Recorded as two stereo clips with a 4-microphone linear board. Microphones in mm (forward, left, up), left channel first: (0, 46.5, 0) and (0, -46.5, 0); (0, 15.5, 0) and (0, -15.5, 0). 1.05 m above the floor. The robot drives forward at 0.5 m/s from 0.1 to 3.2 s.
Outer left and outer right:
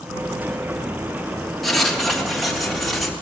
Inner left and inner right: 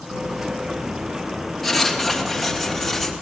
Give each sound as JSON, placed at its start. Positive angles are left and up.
{"t": 1.6, "sound": "writing", "side_deg": 0, "distance_m": 2.5}